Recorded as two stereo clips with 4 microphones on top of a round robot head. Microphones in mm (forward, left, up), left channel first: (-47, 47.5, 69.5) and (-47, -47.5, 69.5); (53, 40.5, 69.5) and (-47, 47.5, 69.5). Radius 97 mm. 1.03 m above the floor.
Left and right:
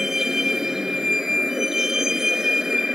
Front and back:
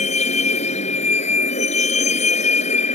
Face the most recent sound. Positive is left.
turn(degrees=-5)